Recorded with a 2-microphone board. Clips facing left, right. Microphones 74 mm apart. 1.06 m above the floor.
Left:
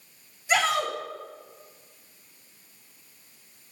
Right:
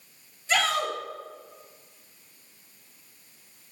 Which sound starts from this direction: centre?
A shout, at 0.5 s.